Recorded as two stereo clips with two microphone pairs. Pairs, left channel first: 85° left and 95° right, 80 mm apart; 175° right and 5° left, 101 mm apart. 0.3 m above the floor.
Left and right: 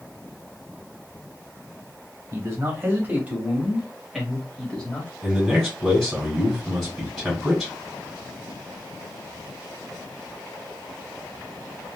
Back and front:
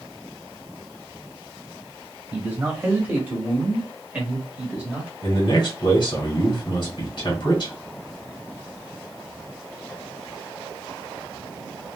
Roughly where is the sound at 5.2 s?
Behind.